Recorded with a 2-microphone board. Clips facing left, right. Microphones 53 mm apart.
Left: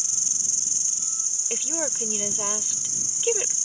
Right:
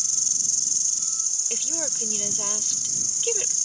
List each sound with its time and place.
0.0 s an insect: 30° left (ahead or behind)
1.5 s a woman speaking: 20° left (ahead or behind)